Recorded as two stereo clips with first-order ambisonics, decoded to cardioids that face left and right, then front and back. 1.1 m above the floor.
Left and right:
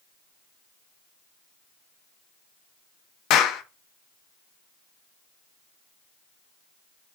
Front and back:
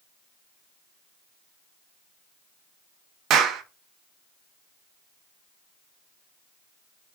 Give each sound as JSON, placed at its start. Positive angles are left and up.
{"t": 3.3, "sound": "a clap", "azimuth_deg": 130, "distance_m": 0.5}